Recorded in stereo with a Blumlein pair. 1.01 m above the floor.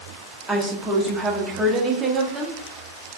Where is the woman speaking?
10° right, 0.7 m.